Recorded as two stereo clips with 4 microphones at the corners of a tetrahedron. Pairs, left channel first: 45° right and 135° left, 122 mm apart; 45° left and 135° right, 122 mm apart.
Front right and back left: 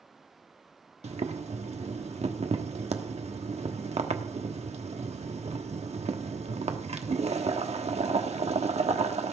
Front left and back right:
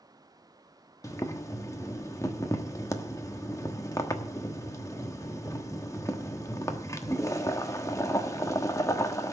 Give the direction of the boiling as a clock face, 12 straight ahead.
8 o'clock.